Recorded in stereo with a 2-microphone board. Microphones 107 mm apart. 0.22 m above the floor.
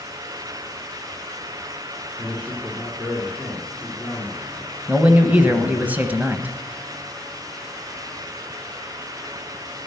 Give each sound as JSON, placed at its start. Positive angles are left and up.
{"t": 2.2, "sound": "a man speaking", "side_deg": 5, "distance_m": 3.5}
{"t": 4.9, "sound": "a man speaking", "side_deg": -15, "distance_m": 1.1}